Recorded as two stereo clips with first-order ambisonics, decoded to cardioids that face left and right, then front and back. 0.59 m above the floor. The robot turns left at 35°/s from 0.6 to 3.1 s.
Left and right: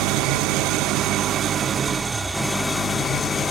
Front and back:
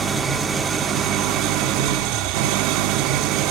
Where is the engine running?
115° right, 0.8 m; by 3.5 s 160° left, 0.8 m.